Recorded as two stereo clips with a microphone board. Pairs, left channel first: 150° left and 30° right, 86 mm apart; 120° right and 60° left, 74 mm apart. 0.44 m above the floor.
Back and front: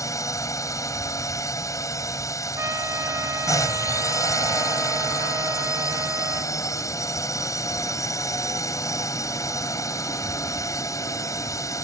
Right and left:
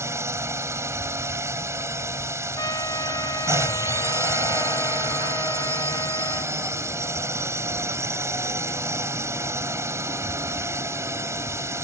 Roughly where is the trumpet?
Right.